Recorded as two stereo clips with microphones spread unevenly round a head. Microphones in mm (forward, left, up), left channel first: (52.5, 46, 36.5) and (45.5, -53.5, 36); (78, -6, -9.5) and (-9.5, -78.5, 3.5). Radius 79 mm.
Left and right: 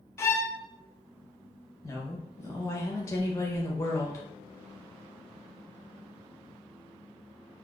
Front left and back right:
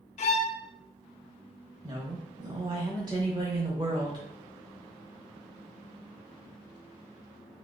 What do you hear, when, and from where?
0.2 s a violin: 20° left, 0.7 m
1.8 s a woman speaking: 150° left, 0.8 m